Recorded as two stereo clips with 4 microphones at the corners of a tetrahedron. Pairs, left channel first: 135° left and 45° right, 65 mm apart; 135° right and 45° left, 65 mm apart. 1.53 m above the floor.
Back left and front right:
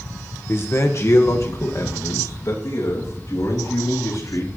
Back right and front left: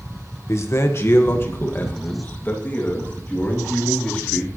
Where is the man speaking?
175° right, 1.4 m; by 4.5 s 155° left, 4 m.